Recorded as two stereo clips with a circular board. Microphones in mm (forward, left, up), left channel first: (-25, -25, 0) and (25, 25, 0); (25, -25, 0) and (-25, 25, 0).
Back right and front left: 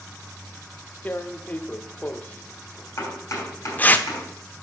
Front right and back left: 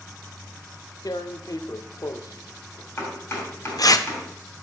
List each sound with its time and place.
1.1 s tearing paper: 70° right, 0.5 m
3.0 s chopping: 90° right, 2.5 m